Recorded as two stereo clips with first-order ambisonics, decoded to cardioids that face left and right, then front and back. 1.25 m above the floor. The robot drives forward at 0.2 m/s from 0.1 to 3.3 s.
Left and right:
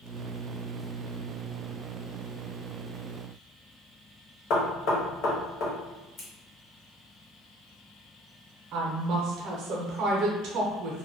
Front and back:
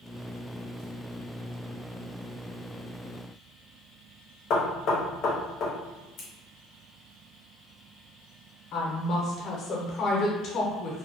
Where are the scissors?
40° left, 0.8 m.